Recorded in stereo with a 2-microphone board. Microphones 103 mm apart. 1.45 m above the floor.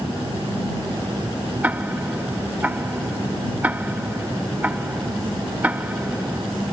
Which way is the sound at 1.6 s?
15° right (ahead or behind).